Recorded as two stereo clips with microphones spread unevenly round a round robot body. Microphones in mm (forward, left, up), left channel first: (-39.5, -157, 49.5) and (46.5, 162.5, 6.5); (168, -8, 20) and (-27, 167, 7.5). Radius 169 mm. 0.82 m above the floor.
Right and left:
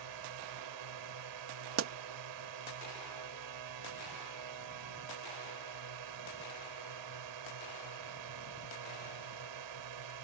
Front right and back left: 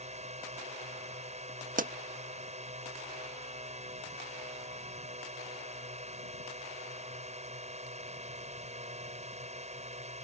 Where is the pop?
90° left.